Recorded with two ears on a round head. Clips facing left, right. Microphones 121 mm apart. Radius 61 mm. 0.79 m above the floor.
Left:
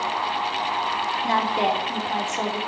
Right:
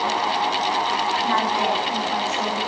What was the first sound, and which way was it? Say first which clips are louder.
A woman speaking: left 2 dB; 30° left (ahead or behind).